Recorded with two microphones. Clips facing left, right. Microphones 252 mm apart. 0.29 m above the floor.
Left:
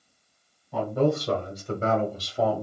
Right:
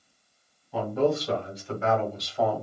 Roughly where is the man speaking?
Left.